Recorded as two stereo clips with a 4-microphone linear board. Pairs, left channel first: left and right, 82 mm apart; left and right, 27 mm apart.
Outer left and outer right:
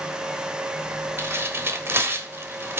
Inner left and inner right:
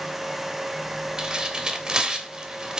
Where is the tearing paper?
30° right (ahead or behind), 1.2 m.